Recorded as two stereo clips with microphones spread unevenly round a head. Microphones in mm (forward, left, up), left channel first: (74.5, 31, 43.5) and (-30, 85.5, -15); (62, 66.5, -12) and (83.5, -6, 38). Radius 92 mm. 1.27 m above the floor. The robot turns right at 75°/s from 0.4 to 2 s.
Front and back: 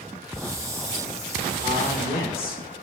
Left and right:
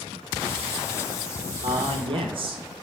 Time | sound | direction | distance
1.6 | a man speaking | 95° right | 1.4 m